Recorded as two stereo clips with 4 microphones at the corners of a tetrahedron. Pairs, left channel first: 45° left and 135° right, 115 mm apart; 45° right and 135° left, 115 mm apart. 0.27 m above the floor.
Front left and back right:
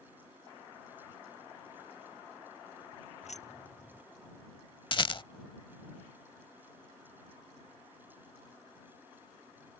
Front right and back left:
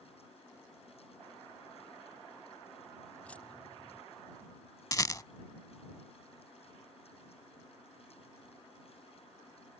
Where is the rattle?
5° left.